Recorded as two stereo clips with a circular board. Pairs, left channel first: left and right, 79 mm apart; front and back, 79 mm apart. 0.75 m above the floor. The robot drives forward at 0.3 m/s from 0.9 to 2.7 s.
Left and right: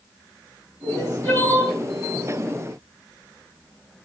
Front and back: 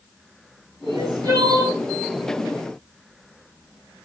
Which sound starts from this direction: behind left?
Crying, at 0.8 s.